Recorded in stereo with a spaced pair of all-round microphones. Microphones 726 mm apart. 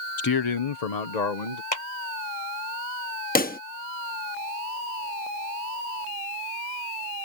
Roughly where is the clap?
Left.